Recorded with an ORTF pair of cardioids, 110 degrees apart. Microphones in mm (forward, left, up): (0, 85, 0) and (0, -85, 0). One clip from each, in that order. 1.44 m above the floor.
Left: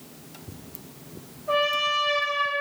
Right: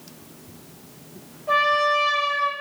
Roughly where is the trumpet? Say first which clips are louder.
Right 4 dB; ahead right.